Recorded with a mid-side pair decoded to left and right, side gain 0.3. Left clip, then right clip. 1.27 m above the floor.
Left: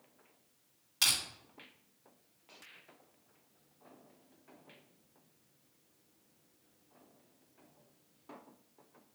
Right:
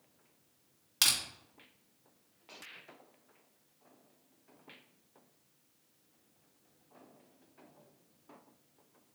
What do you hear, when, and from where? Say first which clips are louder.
1.0 s crushing: right 1 dB; 70° right, 1.8 m